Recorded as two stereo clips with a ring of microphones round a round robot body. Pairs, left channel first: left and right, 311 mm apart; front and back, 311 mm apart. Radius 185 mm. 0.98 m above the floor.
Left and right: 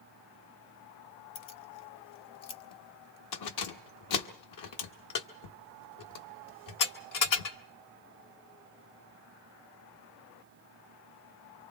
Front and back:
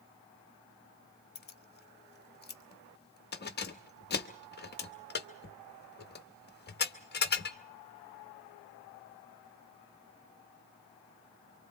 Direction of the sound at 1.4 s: 60° left.